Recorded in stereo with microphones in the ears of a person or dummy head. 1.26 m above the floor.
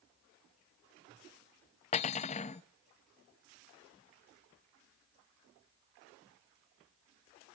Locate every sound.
1.9 s cutlery clinking: 30° left (ahead or behind), 0.6 m